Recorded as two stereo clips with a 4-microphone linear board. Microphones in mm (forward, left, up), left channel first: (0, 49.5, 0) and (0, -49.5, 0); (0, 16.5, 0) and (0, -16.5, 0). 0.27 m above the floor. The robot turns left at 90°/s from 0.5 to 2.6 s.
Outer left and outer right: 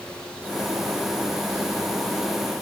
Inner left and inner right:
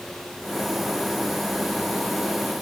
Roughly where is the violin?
I don't hear a violin.